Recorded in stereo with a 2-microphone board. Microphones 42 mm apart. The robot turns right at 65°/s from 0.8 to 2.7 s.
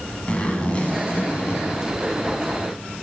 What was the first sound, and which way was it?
A zipper, 25° left.